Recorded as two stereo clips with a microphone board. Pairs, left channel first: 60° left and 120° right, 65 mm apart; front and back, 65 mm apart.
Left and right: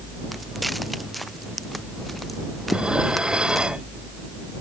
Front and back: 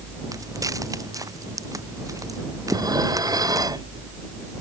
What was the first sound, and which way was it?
Footsteps, 150° left.